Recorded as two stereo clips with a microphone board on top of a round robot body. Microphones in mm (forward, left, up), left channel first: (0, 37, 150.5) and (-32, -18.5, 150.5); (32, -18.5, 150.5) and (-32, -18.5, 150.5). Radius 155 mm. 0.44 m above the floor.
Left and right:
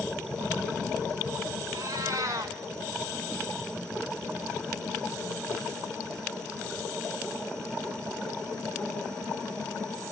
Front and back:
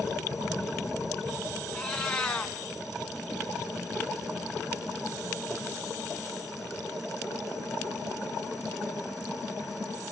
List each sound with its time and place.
1.7 s a cat meowing: 80° right, 2.5 m